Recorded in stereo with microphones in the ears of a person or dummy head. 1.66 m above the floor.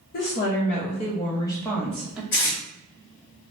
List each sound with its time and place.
0.1 s a woman speaking: 55° left (ahead or behind), 1.1 m; by 2.2 s 5° right (ahead or behind), 1.0 m
2.3 s tape being pulled: 55° left (ahead or behind), 1.9 m